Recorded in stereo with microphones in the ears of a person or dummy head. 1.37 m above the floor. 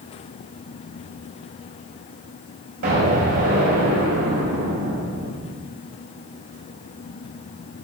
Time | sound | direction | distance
2.8 | an explosion | 55° right (ahead or behind) | 3 m